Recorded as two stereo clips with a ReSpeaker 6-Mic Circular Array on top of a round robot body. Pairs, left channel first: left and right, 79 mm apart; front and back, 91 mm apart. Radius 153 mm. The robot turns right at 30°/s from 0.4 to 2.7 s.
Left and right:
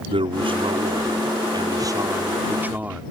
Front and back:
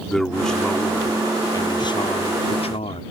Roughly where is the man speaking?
Right.